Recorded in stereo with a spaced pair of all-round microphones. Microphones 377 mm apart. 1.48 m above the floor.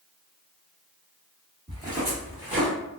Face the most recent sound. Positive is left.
turn(degrees=0)  # may be behind; listen again after turning